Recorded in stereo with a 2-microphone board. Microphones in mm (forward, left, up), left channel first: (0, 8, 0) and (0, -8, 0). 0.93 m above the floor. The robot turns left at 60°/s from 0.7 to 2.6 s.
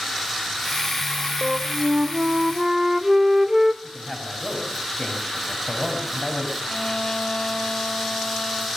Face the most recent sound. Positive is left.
turn(degrees=65)  # may be behind; listen again after turning